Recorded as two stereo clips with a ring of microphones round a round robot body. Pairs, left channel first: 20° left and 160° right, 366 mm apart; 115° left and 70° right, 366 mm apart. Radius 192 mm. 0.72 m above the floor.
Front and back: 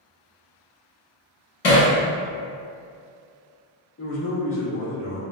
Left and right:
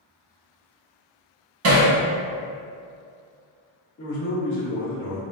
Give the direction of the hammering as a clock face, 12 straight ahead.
1 o'clock.